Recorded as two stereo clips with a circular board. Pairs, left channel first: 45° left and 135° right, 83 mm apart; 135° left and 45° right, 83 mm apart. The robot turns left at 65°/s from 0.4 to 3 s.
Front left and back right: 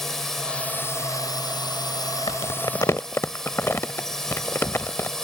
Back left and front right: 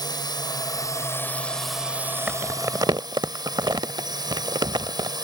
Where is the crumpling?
35° left; by 5.1 s 15° right.